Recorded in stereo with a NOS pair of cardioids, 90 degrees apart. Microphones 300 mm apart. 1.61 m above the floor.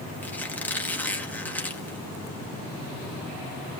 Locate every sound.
0.2 s a squeak: 5° left, 2 m